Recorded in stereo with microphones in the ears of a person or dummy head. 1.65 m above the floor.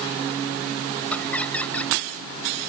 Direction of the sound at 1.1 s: 10° left (ahead or behind).